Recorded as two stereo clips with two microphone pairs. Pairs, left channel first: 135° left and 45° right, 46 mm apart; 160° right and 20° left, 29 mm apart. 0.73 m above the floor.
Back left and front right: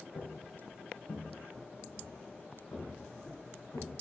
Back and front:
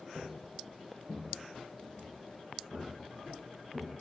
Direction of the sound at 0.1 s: 125° left.